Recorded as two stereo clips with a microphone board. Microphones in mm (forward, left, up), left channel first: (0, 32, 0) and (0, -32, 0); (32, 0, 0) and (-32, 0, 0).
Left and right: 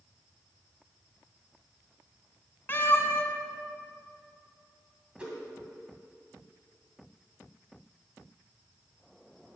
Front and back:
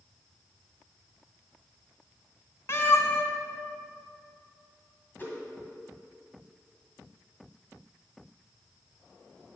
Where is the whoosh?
30° right, 1.9 m.